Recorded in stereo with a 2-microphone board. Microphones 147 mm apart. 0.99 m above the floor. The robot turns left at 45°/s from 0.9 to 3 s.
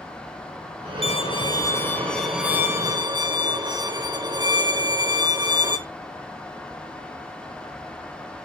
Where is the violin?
55° left, 1.0 m; by 5.8 s 35° right, 1.0 m.